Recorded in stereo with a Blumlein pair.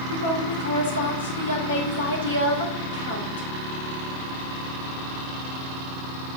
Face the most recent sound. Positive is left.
turn(degrees=70)